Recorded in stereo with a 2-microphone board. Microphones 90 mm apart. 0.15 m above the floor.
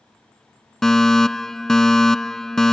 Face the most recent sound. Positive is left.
turn(degrees=5)  # may be behind; listen again after turning